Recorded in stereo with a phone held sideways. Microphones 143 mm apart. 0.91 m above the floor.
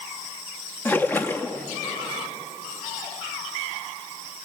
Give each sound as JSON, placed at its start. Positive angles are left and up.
{"t": 0.8, "sound": "a splash", "side_deg": 15, "distance_m": 0.9}